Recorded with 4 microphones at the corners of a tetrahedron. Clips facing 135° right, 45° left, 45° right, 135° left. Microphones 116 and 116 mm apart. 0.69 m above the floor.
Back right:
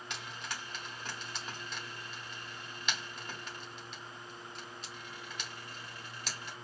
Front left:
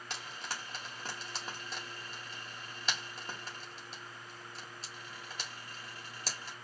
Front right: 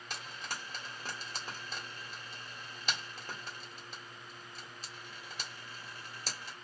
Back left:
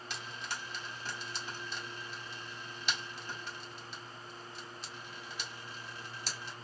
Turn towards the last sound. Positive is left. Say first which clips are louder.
# front left 1 dB, even
turn(degrees=-5)